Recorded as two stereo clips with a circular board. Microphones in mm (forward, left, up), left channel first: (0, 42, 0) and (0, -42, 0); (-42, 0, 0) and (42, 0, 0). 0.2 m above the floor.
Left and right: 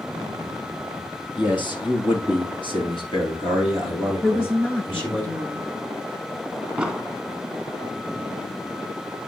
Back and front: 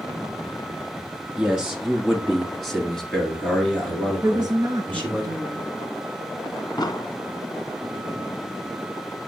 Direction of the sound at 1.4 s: 75° left.